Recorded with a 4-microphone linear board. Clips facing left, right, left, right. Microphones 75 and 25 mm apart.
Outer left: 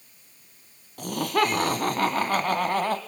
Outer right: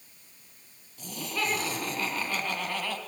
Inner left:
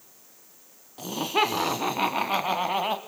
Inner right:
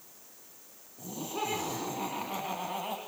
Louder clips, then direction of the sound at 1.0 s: Outer left 10 dB, inner left 11 dB; 65° left (ahead or behind).